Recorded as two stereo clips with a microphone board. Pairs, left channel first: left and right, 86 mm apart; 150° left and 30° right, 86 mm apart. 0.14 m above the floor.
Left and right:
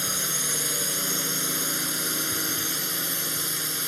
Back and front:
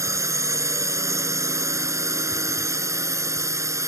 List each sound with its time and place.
0.0 s a drone: straight ahead